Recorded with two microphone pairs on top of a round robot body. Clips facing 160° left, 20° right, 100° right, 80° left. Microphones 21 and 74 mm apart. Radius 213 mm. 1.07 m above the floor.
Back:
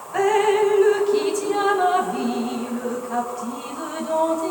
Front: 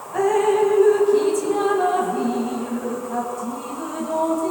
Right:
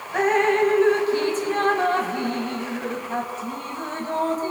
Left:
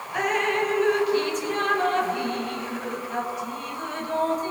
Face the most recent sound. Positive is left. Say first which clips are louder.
# even, right 5 dB
turn(degrees=-155)